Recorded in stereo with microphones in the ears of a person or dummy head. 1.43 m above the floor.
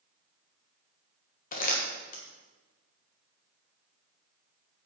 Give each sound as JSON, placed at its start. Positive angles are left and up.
{"t": 1.5, "sound": "crumpling", "side_deg": 45, "distance_m": 1.6}